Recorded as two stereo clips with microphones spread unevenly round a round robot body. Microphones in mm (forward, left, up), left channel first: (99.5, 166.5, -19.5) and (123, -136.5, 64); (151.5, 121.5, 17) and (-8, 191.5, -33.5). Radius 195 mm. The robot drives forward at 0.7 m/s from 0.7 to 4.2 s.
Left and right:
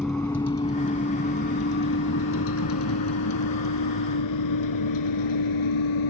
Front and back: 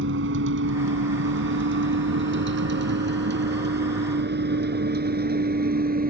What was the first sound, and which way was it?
A vehicle, 175° right.